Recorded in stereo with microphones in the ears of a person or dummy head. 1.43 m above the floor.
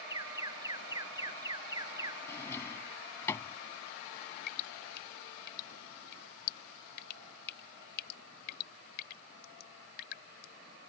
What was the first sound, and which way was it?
An alarm, 10° right (ahead or behind).